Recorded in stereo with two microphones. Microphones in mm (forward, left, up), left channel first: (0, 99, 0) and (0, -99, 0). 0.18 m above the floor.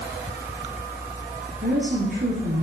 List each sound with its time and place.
1.6 s a woman speaking: 50° right (ahead or behind), 4.5 m